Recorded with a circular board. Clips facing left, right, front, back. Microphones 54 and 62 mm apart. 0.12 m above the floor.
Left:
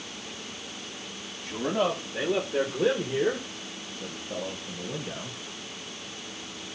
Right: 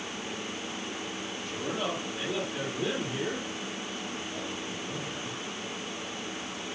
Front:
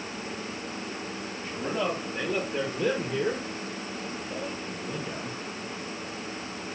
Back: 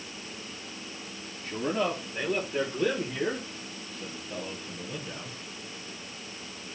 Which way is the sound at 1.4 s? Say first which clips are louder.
Left 7 dB, back 1 dB; 90° left.